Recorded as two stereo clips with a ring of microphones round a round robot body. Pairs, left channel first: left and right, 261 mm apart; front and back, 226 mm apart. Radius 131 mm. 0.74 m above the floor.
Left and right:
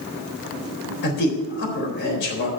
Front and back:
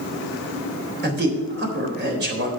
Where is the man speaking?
140° left, 4 m.